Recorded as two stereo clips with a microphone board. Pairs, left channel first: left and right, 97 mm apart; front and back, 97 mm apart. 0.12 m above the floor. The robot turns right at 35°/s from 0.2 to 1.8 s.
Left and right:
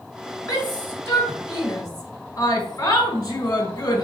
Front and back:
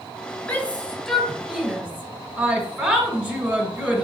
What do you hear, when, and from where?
0.5 s a shout: 55° left, 1.4 m; by 4.0 s 100° left, 1.4 m